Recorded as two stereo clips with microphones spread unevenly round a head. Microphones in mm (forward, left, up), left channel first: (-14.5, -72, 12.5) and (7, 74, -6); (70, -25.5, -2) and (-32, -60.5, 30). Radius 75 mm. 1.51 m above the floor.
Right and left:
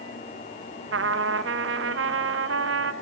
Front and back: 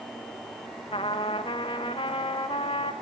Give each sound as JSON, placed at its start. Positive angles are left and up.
{"t": 0.9, "sound": "a trumpet", "azimuth_deg": 85, "distance_m": 0.8}